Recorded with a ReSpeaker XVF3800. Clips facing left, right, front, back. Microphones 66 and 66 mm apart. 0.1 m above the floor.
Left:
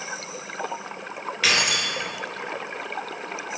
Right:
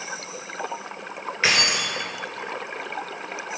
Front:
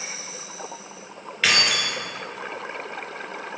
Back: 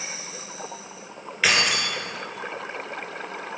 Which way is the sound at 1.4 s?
105° right.